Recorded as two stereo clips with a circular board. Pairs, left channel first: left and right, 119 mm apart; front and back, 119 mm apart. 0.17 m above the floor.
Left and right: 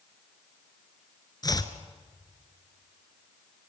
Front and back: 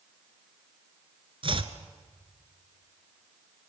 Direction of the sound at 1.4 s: 145° left.